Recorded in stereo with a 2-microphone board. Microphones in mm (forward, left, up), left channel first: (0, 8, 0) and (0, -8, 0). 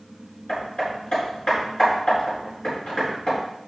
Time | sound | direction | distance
0.5 | hammering | 65° left (ahead or behind) | 4.5 m